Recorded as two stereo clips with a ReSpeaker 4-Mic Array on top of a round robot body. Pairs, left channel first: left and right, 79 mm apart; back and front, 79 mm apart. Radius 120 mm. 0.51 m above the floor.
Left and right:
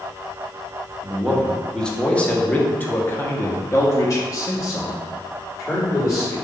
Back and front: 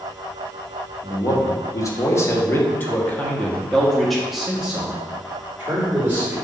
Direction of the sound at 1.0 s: Straight behind.